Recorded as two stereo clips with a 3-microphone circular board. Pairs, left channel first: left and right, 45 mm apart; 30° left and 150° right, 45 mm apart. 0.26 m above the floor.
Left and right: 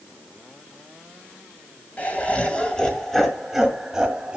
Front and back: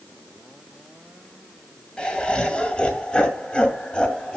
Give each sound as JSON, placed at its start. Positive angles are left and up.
{"t": 2.0, "sound": "laughter", "azimuth_deg": 80, "distance_m": 1.7}